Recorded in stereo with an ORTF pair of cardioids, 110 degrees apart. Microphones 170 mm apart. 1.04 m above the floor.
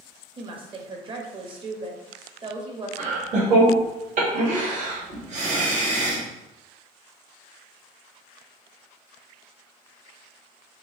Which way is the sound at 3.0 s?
50° right.